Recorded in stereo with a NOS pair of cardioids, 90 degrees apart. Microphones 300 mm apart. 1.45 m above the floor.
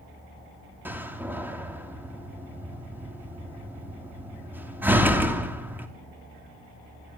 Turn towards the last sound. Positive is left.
turn(degrees=-5)